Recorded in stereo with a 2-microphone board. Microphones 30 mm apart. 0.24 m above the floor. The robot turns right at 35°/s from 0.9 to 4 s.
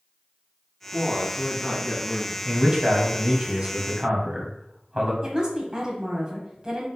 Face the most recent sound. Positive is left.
turn(degrees=-25)  # may be behind; listen again after turning